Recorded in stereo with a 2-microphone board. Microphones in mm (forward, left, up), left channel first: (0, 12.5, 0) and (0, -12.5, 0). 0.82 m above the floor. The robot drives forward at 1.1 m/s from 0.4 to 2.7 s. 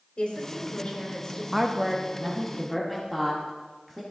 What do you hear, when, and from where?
0.2 s a woman speaking: 50° left (ahead or behind), 2 m; by 1.4 s 35° left (ahead or behind), 3 m
1.5 s a woman speaking: centre (ahead or behind), 0.6 m